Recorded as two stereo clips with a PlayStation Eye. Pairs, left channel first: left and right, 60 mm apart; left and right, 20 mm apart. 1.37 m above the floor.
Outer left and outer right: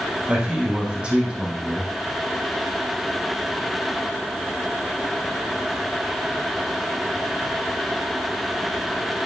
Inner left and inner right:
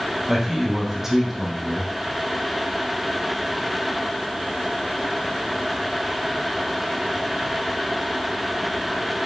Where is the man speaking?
20° right (ahead or behind), 2 m.